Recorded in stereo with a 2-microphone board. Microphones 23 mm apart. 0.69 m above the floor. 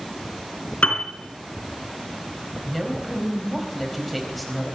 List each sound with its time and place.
0.8 s a piano: 85° left, 2.5 m
2.6 s a woman speaking: 5° left (ahead or behind), 4 m